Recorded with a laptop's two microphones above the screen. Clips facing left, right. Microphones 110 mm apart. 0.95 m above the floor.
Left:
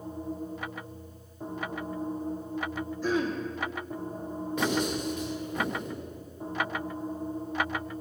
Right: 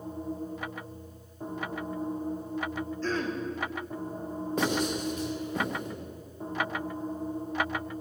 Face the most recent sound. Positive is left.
turn(degrees=-35)  # may be behind; listen again after turning